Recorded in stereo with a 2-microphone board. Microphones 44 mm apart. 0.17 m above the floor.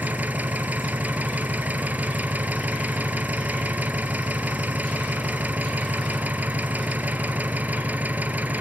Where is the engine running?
35° right (ahead or behind), 1.0 m.